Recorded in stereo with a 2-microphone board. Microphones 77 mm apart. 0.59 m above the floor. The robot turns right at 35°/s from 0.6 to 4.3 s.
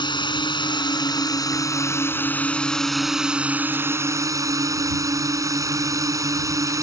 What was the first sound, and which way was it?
A drone, 95° left.